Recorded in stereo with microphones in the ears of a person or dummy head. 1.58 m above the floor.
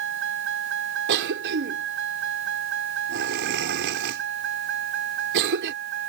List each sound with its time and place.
0.0 s a vehicle: 65° right (ahead or behind); by 6.1 s 60° right (ahead or behind)
1.1 s a cough: 65° right (ahead or behind)